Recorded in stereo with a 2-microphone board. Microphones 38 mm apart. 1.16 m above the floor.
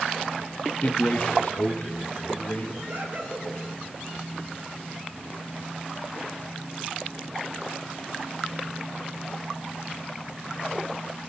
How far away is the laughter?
About 5.5 m.